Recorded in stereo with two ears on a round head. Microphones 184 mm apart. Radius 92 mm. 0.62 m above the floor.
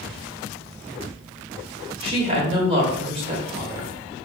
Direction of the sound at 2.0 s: 30° right (ahead or behind).